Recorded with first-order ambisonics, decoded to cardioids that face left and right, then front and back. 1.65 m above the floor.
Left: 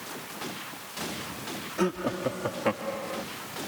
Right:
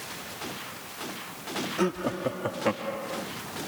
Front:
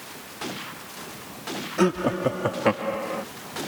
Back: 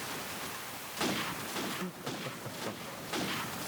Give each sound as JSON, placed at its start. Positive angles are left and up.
{"t": 1.8, "sound": "laughter", "azimuth_deg": 0}